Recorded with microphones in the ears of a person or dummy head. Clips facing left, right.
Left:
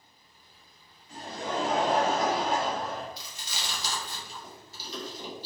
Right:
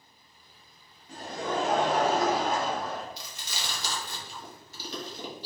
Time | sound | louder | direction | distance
1.1 | laughter | right 2 dB | 35° right (ahead or behind) | 1.2 m
3.2 | chewing | right 1 dB | 50° right (ahead or behind) | 0.8 m